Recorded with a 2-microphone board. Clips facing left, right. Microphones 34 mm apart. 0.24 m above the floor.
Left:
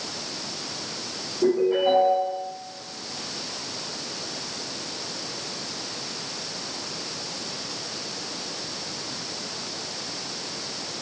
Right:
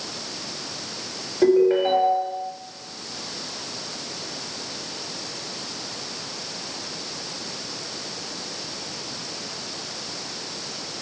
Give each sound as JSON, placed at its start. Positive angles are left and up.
{"t": 1.4, "sound": "a ringtone", "side_deg": -70, "distance_m": 1.5}